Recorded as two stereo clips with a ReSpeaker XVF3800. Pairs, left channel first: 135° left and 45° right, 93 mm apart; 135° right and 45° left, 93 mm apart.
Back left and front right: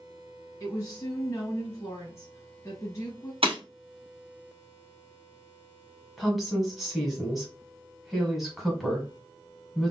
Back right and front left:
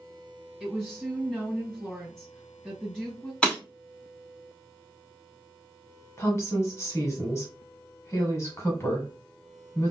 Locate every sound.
0.6 s a woman speaking: 145° left, 1.4 m
3.4 s breaking glass: 55° right, 1.5 m
6.2 s a woman speaking: 130° right, 1.2 m